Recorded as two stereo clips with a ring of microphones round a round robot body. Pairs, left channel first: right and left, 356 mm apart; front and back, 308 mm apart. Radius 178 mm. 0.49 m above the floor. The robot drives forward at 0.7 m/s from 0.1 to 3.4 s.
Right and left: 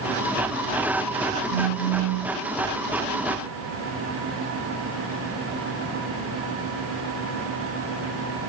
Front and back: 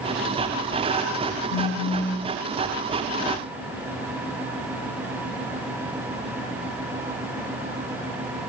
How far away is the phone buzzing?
About 2.5 m.